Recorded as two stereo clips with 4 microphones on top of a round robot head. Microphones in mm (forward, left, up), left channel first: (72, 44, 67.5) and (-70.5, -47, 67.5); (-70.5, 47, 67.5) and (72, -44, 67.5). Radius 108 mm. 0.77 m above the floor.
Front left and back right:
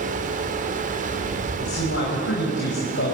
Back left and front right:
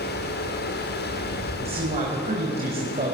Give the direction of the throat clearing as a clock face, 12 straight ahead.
I don't hear throat clearing.